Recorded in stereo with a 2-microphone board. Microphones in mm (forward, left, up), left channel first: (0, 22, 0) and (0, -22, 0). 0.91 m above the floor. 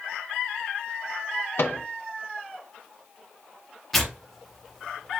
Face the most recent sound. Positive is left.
turn(degrees=0)  # may be behind; listen again after turning